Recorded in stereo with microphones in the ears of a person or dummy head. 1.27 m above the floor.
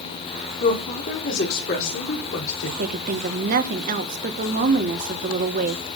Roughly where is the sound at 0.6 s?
Left.